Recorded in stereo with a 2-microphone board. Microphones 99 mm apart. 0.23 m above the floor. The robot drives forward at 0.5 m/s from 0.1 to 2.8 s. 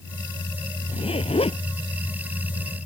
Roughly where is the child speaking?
No child speaking in this recording.